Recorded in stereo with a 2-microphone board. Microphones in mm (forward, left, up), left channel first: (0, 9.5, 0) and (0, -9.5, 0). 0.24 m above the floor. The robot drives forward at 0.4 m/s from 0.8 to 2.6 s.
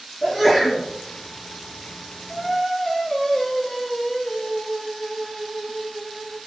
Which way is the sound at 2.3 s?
25° left (ahead or behind).